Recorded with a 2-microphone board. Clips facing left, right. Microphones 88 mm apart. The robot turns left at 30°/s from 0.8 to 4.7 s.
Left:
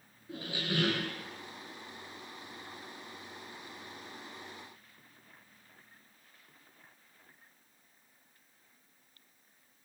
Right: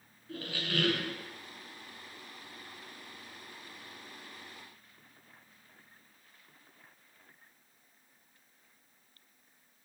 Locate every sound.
0.3 s a squeak: 20° left (ahead or behind), 0.5 m; by 1.1 s 25° left (ahead or behind), 0.5 m